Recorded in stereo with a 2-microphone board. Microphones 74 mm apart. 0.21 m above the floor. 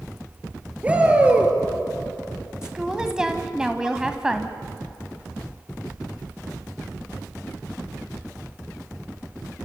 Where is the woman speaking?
10° right (ahead or behind), 1.2 m.